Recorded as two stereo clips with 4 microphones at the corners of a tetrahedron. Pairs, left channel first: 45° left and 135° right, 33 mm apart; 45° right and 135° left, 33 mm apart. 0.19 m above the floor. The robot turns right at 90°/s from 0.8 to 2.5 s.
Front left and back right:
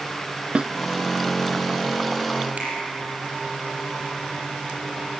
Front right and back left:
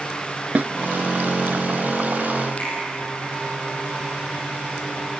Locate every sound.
0.6 s a snare drum: 170° left, 0.7 m
2.6 s a finger snap: 100° right, 6 m